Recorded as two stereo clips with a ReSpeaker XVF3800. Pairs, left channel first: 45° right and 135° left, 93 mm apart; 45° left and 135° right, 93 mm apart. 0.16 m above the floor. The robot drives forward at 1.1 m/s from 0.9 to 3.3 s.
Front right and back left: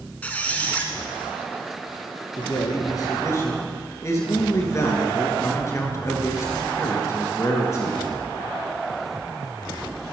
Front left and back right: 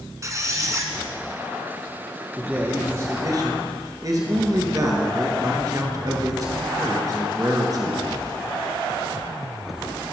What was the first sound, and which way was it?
A squeak, 110° right.